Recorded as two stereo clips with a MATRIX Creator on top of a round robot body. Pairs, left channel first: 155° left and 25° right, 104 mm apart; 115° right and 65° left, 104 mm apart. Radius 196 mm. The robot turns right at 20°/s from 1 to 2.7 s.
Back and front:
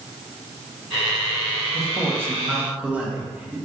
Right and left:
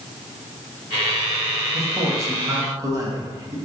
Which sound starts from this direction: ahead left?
A man speaking, at 1.7 s.